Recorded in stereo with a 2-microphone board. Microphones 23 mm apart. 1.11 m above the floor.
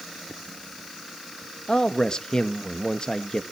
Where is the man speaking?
45° left (ahead or behind), 1.2 m.